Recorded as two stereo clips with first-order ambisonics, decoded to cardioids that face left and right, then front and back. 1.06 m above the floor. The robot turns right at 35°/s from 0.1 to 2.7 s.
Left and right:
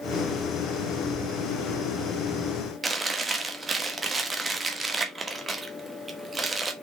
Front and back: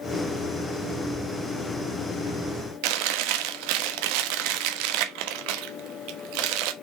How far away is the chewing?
About 1.1 m.